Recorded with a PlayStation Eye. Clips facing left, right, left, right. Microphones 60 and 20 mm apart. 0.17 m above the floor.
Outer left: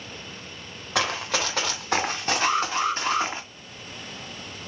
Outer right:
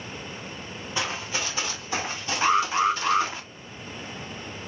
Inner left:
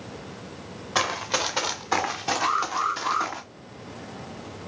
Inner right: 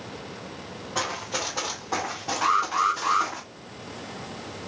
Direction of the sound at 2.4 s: 25° right (ahead or behind).